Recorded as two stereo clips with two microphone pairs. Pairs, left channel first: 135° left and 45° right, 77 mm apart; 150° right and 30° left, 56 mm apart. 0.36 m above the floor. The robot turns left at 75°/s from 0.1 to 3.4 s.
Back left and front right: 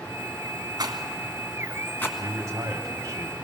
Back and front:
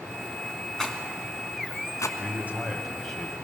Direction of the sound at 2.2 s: Straight ahead.